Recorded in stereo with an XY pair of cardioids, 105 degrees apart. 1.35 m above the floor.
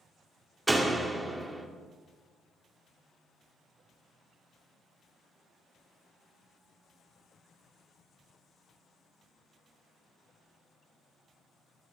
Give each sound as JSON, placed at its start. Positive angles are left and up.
{"t": 0.7, "sound": "a door slam", "azimuth_deg": -20, "distance_m": 2.0}